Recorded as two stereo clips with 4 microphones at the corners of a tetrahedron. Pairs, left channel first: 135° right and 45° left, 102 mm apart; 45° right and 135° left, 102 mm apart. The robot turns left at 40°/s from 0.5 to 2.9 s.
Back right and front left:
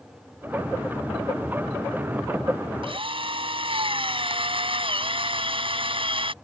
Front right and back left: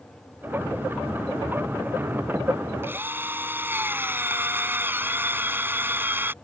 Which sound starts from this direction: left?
A drill, at 2.8 s.